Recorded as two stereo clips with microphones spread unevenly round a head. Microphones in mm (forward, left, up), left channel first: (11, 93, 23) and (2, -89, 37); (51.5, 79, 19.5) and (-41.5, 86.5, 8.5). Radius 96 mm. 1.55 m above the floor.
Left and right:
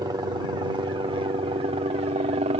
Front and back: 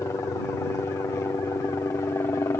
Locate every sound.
0.0 s a helicopter: 40° right; by 2.6 s 60° right